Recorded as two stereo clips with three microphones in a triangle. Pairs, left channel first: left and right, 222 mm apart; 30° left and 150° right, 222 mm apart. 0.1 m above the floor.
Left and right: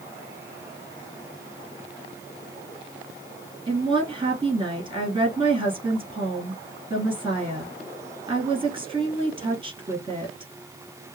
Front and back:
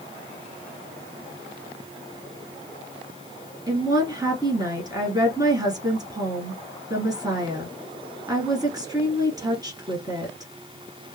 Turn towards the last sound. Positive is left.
turn(degrees=-105)